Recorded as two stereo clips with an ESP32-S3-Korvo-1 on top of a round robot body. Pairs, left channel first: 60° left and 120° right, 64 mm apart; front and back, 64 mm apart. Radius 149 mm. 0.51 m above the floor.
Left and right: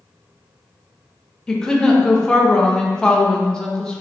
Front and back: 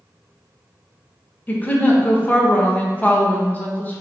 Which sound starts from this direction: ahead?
A woman speaking, at 1.5 s.